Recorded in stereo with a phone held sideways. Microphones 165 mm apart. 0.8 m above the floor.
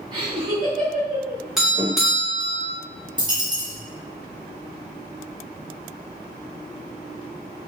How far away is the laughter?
About 0.9 m.